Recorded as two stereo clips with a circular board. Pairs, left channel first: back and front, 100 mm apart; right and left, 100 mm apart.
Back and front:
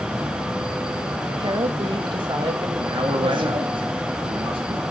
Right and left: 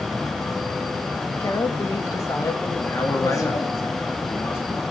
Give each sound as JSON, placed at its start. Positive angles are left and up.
{"t": 1.4, "sound": "a woman speaking", "azimuth_deg": -35, "distance_m": 2.5}
{"t": 2.8, "sound": "a man speaking", "azimuth_deg": -25, "distance_m": 2.5}